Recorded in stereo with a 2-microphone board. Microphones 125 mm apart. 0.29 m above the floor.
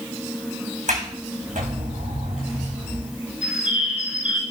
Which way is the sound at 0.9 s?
80° right.